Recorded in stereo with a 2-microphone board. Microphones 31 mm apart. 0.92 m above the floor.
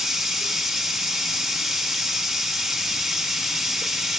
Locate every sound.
0.0 s running water: 15° right (ahead or behind), 0.8 m